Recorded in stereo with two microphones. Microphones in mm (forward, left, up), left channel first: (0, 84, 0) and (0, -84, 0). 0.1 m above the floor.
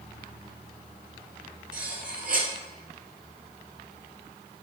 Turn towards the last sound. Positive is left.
turn(degrees=-55)  # may be behind; listen again after turning